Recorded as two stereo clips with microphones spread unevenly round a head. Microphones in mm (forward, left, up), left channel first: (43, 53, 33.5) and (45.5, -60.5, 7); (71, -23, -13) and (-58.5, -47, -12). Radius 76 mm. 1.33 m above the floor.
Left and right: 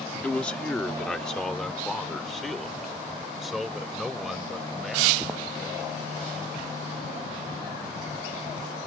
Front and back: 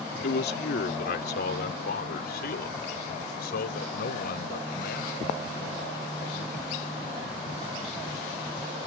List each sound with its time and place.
0.2 s a man speaking: 15° left; by 6.8 s straight ahead